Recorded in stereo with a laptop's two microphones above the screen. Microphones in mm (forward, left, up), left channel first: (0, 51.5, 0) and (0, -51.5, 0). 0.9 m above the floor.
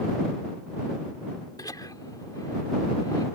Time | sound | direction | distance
1.6 | laughter | 35° left (ahead or behind) | ?